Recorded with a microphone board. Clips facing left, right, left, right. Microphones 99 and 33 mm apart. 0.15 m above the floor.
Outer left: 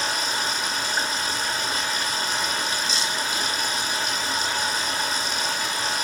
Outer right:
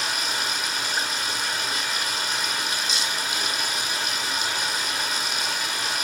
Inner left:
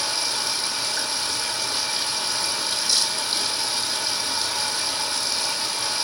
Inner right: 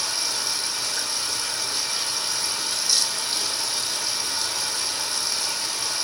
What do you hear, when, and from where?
0.0 s running water: 35° left (ahead or behind), 1.1 m